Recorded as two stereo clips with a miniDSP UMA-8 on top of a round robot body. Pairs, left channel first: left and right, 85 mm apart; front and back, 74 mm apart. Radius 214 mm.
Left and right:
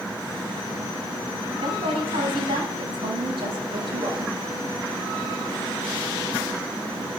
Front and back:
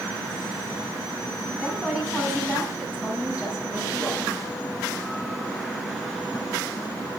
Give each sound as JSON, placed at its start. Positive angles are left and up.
{"t": 1.5, "sound": "a woman speaking", "azimuth_deg": -95, "distance_m": 6.5}